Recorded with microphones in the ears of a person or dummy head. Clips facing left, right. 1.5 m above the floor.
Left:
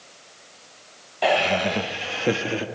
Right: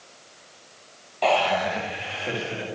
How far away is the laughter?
About 1.0 m.